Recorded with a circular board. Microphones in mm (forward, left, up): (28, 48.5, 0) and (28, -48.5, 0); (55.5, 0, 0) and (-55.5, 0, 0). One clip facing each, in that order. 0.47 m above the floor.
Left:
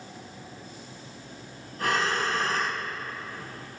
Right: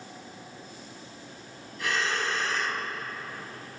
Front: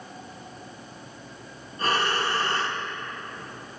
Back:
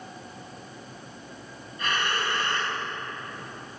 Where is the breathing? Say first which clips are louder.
Left 3 dB, front 3 dB; 50° left, 4 m.